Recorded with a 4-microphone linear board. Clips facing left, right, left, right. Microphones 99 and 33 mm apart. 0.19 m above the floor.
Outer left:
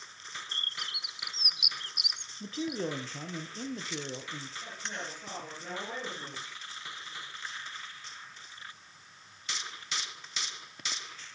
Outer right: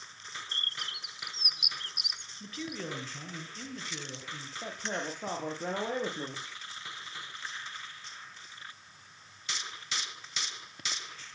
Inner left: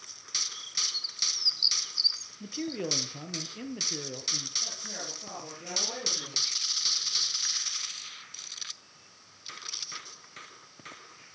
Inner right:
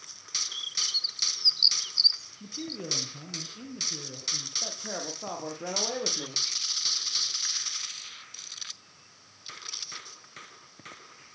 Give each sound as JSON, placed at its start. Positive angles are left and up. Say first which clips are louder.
{"t": 0.5, "sound": "a bird", "louder": "even, inner right 3 dB", "side_deg": -45, "distance_m": 1.2}
{"t": 2.4, "sound": "a man speaking", "louder": "outer left 6 dB, inner left 6 dB", "side_deg": 30, "distance_m": 4.0}
{"t": 4.6, "sound": "a man speaking", "louder": "outer right 8 dB, inner right 3 dB", "side_deg": -55, "distance_m": 7.0}